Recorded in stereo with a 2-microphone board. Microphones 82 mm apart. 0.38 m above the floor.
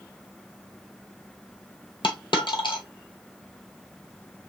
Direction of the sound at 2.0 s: 75° left (ahead or behind).